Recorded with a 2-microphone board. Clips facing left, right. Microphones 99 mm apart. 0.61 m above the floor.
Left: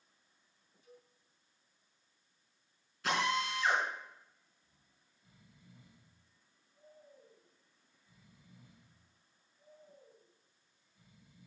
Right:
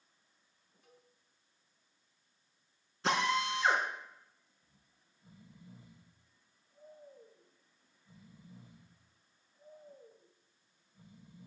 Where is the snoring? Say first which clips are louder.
Right 1 dB; 35° right (ahead or behind), 2.5 m.